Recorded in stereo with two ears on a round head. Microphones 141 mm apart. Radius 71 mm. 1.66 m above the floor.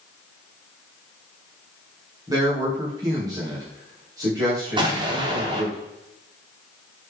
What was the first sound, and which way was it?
A man speaking, 25° right (ahead or behind).